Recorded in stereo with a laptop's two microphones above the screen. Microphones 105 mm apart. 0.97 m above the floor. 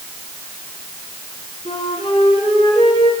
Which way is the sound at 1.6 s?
80° left.